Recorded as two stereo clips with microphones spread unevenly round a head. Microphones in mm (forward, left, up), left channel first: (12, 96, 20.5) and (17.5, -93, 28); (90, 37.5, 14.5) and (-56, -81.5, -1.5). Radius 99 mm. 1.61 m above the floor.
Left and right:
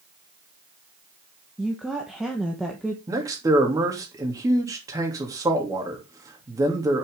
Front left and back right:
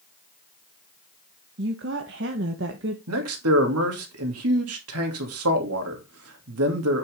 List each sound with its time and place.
1.6 s a woman speaking: 175° right, 1.2 m
3.1 s a man speaking: 160° right, 2.5 m